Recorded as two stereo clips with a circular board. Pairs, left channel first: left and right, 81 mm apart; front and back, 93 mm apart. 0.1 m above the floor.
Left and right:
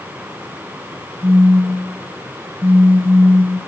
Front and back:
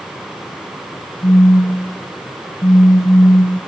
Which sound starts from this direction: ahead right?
A phone buzzing, at 1.2 s.